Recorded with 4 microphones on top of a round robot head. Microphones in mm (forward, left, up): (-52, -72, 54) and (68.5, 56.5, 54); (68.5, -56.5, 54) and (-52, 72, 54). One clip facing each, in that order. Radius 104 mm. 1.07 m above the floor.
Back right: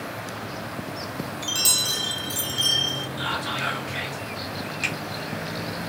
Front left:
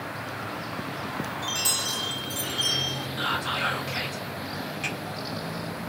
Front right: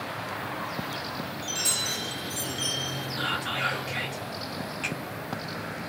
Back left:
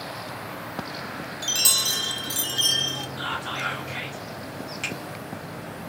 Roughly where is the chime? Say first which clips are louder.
Back right 1 dB, even; behind left.